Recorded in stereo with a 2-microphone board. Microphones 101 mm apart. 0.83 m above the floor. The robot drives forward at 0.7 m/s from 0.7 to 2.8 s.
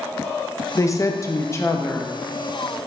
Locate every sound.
0.8 s a woman speaking: 30° left (ahead or behind), 0.8 m; by 2.1 s 20° left (ahead or behind), 1.1 m